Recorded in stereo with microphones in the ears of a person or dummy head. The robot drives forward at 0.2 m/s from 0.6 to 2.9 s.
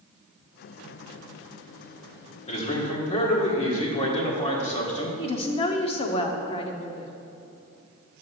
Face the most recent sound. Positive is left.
turn(degrees=30)  # may be behind; listen again after turning